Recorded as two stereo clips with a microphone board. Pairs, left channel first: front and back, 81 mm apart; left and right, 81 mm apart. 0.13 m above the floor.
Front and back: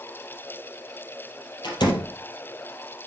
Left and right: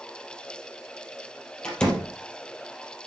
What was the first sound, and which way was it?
A door slam, 15° left.